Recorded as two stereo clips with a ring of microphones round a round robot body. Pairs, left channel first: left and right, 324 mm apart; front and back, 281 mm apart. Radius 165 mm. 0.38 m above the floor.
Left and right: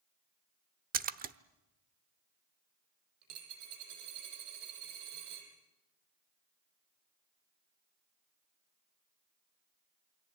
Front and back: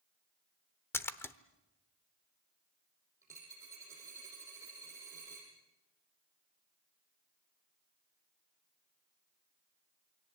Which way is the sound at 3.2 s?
100° right.